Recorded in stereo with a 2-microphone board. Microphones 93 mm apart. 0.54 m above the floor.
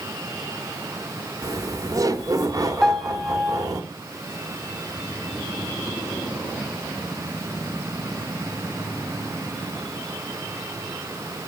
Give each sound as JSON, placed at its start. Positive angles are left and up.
{"t": 1.4, "sound": "laughter", "side_deg": -40, "distance_m": 1.7}
{"t": 2.8, "sound": "a piano", "side_deg": 0, "distance_m": 1.6}